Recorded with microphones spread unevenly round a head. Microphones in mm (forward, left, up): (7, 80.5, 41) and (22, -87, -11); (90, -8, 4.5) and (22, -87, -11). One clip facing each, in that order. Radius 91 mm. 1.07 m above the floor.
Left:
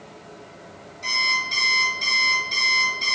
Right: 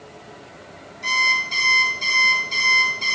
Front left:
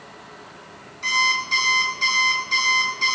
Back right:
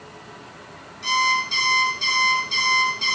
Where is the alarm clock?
15° left, 4 m.